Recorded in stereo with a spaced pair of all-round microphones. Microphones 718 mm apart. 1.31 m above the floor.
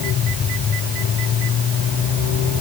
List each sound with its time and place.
Only background noise.